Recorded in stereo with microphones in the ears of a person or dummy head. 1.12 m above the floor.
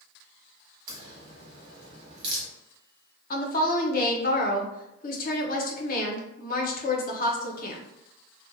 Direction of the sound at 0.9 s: 25° right (ahead or behind).